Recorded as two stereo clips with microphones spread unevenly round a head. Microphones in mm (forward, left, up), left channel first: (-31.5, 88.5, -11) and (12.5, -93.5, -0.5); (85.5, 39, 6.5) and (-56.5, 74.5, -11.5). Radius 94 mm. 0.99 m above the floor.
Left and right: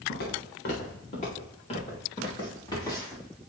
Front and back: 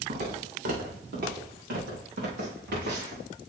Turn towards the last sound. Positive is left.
turn(degrees=180)